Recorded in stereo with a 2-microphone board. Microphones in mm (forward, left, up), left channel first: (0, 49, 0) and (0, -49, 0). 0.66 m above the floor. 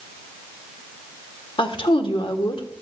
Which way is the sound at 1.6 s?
60° left (ahead or behind).